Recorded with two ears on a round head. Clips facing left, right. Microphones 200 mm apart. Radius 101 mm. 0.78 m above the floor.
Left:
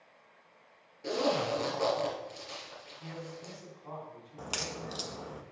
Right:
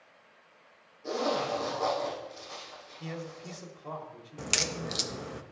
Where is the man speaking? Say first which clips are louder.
Right 4 dB; 60° right (ahead or behind), 1.7 m.